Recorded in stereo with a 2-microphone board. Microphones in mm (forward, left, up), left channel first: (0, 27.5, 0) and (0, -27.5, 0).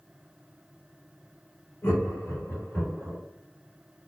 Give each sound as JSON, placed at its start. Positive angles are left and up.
{"t": 1.8, "sound": "laughter", "side_deg": 50, "distance_m": 1.6}